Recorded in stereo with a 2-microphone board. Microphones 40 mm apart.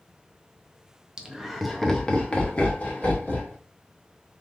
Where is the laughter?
20° right (ahead or behind), 0.8 m; by 3.5 s 45° left (ahead or behind), 1.5 m.